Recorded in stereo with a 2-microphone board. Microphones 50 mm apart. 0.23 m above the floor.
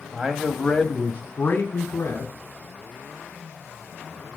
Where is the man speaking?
25° right (ahead or behind), 1.0 m; by 2.3 s 40° left (ahead or behind), 1.9 m.